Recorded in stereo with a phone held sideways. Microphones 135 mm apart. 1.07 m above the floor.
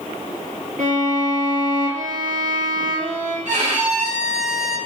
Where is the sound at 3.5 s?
70° right (ahead or behind), 3 m.